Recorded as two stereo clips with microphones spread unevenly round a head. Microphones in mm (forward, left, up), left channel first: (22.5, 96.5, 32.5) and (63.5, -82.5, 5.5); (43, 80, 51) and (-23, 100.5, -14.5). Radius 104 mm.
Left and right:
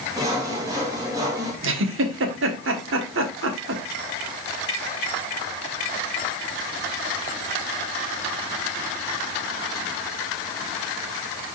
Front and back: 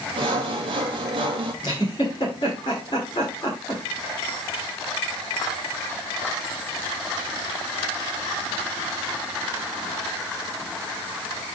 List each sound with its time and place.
0.2 s sawing: 155° right, 2 m
1.6 s a giggle: 65° right, 1.5 m